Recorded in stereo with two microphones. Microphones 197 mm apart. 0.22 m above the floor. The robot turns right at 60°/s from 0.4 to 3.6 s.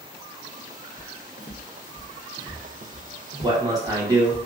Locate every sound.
1.0 s footsteps: 60° left (ahead or behind), 1.0 m; by 4.4 s 40° right (ahead or behind), 1.4 m
3.4 s a man speaking: 25° right (ahead or behind), 1.2 m; by 4.3 s 20° right (ahead or behind), 1.2 m